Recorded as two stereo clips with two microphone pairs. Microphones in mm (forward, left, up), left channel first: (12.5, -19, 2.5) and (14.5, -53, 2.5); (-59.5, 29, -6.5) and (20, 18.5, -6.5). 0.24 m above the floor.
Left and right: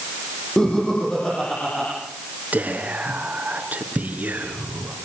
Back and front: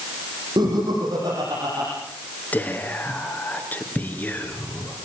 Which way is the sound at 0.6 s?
20° left.